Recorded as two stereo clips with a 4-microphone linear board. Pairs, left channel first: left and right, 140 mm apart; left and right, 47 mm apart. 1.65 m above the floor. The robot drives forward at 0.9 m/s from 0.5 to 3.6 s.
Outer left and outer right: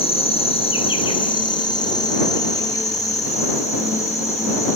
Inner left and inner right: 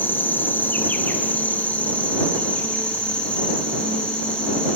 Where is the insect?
45° left (ahead or behind), 3 m; by 4.8 s 25° left (ahead or behind), 5 m.